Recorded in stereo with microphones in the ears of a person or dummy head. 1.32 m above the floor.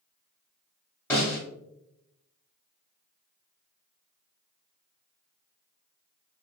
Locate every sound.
1.1 s a snare drum: 10° left (ahead or behind), 1.1 m